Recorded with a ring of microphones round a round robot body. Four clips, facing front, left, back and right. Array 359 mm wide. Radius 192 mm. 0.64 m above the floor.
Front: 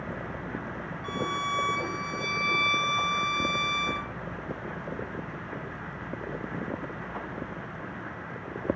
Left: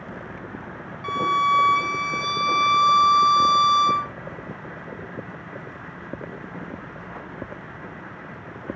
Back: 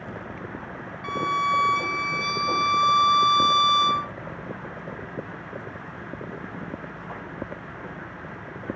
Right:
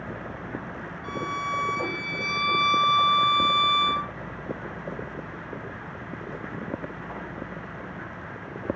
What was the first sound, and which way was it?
A violin, 125° left.